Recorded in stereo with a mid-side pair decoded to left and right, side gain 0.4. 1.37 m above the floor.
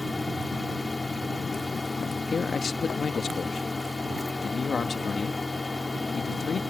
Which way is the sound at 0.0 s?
25° left.